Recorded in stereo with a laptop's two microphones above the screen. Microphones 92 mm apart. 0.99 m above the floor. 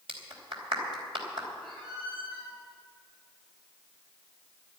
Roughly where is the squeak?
Right.